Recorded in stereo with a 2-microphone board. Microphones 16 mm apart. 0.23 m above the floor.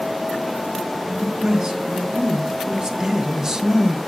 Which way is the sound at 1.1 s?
45° right (ahead or behind).